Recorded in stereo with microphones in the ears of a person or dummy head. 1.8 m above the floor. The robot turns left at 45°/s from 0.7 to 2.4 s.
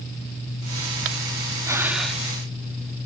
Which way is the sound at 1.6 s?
10° right (ahead or behind).